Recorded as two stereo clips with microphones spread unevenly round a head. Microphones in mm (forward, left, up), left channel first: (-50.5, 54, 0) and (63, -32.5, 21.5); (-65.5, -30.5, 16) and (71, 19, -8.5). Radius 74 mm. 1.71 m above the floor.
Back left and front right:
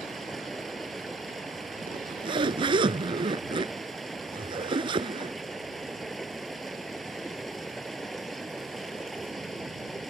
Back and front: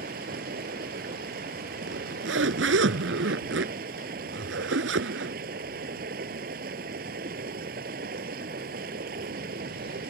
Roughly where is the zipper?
Ahead.